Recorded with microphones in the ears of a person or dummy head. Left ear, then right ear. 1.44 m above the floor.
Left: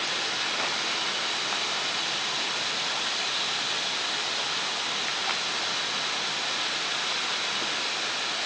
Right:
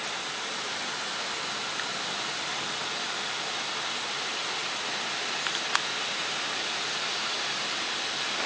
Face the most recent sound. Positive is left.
No sound to turn to.